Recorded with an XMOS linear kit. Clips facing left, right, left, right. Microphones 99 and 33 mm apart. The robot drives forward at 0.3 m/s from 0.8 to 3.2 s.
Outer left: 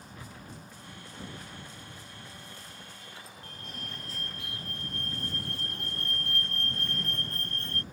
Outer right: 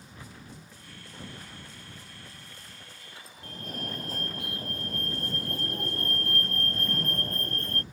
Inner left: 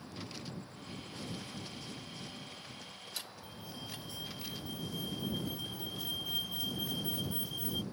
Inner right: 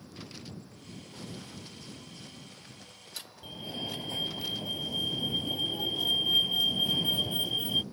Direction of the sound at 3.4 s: 45° right (ahead or behind).